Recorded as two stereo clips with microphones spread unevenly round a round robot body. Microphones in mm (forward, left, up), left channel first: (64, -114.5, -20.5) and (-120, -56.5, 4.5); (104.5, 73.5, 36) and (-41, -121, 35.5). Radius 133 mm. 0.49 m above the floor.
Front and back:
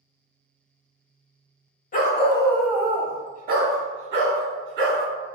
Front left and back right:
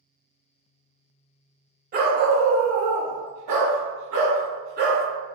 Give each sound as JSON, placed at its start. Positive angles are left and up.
{"t": 1.9, "sound": "a dog barking", "azimuth_deg": -70, "distance_m": 0.6}